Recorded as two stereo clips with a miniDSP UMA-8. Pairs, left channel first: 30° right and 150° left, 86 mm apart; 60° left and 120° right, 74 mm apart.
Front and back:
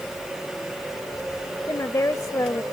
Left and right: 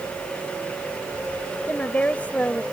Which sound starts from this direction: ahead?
A woman speaking, at 1.7 s.